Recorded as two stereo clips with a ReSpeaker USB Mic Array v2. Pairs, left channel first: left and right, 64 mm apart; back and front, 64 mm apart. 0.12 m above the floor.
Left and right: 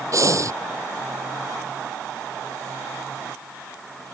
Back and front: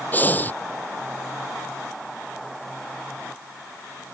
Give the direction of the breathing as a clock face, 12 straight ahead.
4 o'clock.